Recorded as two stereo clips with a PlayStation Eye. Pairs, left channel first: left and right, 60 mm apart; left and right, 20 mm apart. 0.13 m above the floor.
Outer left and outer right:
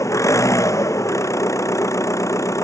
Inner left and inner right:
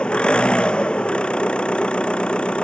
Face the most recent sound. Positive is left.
turn(degrees=60)  # may be behind; listen again after turning